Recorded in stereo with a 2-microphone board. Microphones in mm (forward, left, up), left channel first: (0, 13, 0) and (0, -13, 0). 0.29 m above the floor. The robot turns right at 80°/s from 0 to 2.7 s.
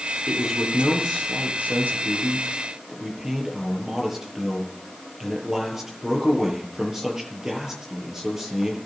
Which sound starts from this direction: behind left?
A man speaking, at 0.3 s.